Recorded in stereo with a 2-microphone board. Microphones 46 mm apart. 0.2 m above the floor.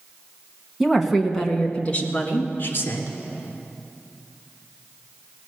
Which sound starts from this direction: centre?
A woman speaking, at 0.8 s.